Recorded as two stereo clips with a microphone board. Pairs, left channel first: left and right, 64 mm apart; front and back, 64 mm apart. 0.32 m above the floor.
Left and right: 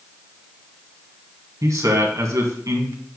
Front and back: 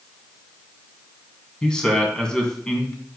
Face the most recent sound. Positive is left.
turn(degrees=-75)